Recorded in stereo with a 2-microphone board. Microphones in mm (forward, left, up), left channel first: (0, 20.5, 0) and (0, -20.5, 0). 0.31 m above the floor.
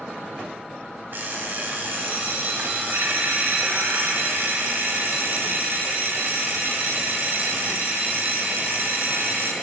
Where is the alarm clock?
55° right (ahead or behind), 1.1 m.